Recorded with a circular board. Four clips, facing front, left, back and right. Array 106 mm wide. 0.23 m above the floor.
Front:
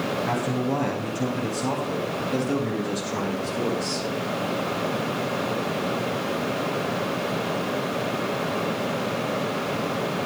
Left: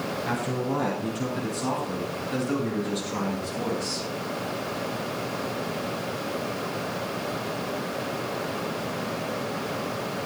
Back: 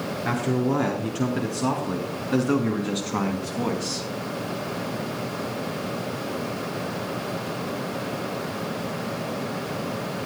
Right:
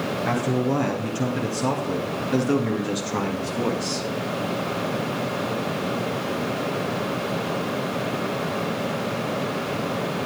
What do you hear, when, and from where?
0.2 s a man speaking: 165° right, 4 m; by 4.1 s 150° right, 2 m